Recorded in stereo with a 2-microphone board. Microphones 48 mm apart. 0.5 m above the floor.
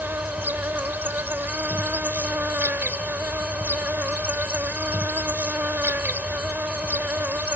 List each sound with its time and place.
0.0 s an insect: 45° right (ahead or behind)